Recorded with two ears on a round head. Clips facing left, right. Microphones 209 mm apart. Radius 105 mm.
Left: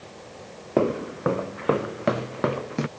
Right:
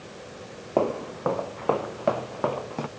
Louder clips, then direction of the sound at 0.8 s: Left 2 dB; 25° left (ahead or behind).